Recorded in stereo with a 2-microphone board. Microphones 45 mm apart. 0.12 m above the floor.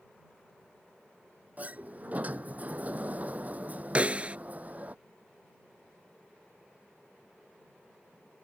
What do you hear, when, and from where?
1.6 s a sliding door: 35° right (ahead or behind)
4.0 s a snare drum: 30° right (ahead or behind)